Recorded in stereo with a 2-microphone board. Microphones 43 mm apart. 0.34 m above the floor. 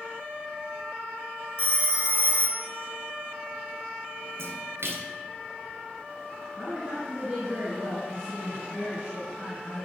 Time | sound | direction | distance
1.6 | a phone ringing | 30° right (ahead or behind) | 0.7 m
4.4 | a splash | 80° right | 1.3 m
6.6 | a woman speaking | 15° right (ahead or behind) | 3 m